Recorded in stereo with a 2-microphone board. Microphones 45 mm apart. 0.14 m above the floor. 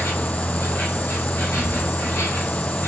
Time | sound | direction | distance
0.0 | an insect | 65° left (ahead or behind) | 1.7 m